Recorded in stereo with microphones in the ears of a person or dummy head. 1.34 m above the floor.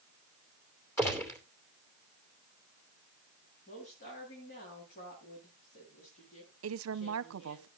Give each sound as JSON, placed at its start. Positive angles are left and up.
{"t": 1.0, "sound": "a gunshot", "side_deg": 10, "distance_m": 2.5}
{"t": 3.7, "sound": "a woman speaking", "side_deg": 50, "distance_m": 8.5}
{"t": 6.6, "sound": "a woman speaking", "side_deg": -70, "distance_m": 0.9}